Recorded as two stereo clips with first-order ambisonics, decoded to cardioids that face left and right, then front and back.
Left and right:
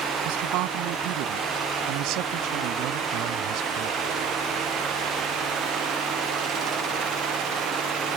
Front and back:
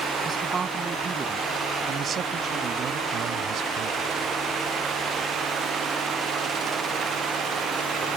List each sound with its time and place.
0.2 s a man speaking: 110° right; by 4.1 s 135° right